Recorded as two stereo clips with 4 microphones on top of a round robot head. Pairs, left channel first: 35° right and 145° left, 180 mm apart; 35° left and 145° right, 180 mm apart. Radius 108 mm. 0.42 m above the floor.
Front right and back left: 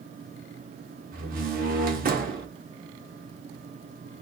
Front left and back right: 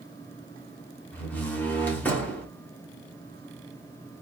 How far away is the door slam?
About 1.4 m.